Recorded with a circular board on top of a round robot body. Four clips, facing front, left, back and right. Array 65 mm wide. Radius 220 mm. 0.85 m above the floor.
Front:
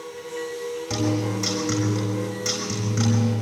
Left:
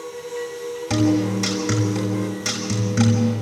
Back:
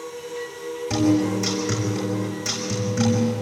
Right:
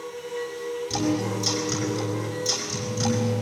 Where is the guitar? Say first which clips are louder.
Left 8 dB, back 6 dB; 80° left, 6.5 m.